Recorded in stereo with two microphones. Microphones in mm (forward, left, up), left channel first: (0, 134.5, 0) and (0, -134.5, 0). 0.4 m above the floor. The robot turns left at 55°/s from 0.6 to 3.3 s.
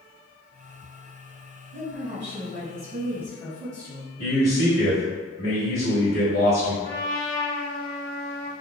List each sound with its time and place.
1.7 s a woman speaking: 110° left, 1.7 m; by 4.2 s 25° left, 1.7 m
4.2 s a man speaking: 55° left (ahead or behind), 1.6 m
6.8 s a trumpet: 25° right (ahead or behind), 1.2 m